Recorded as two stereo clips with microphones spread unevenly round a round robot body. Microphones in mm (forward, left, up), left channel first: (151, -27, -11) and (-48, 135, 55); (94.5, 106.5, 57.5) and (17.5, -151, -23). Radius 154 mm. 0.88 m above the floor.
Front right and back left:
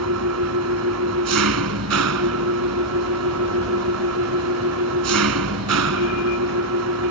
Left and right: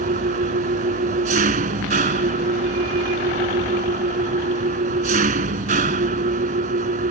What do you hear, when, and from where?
0.0 s an engine running: 175° right